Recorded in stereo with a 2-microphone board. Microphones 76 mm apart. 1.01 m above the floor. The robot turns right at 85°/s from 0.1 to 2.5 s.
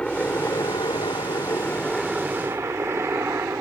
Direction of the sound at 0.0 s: 10° left (ahead or behind).